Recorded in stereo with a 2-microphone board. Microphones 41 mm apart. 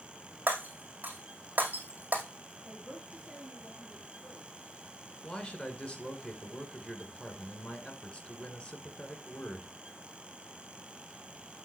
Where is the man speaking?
25° left (ahead or behind), 1.9 m.